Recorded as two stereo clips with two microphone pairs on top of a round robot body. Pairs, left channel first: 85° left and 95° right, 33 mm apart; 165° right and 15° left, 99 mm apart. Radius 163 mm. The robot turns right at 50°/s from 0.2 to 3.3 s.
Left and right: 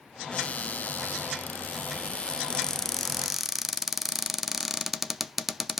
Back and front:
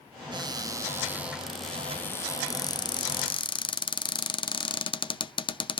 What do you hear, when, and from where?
0.3 s a cupboard door: 45° left, 0.7 m; by 5.8 s 170° right, 0.7 m